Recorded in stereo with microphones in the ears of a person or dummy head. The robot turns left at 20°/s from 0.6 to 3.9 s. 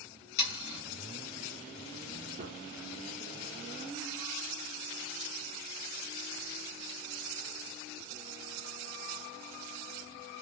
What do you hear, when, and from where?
0.4 s sawing: 65° left (ahead or behind), 1.7 m; by 0.8 s 60° left (ahead or behind), 1.7 m
2.4 s a gunshot: 40° right (ahead or behind), 0.5 m; by 2.6 s 45° right (ahead or behind), 0.5 m